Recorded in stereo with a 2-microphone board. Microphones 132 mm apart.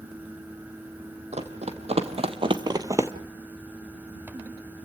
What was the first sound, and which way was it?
Running footsteps, 55° right (ahead or behind).